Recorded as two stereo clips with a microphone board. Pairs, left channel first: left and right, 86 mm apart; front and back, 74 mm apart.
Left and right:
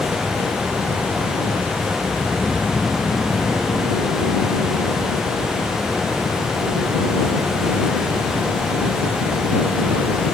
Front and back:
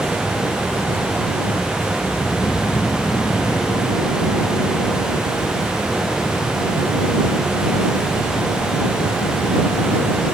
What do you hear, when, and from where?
2.0 s snoring: 25° left